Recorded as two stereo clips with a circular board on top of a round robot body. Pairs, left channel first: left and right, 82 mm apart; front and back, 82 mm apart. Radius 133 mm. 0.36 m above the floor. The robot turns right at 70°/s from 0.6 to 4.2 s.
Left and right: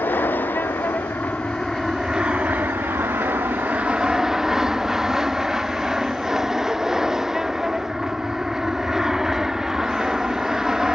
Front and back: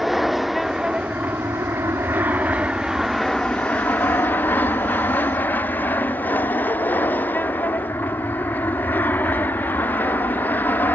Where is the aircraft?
95° left; by 11.0 s 15° right.